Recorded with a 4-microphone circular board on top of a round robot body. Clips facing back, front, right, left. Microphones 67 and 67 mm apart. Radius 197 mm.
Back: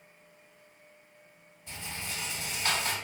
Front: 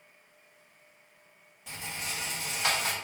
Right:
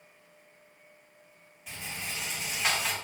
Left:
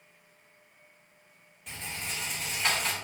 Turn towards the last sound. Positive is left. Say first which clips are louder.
# front 2 dB, even
turn(degrees=-5)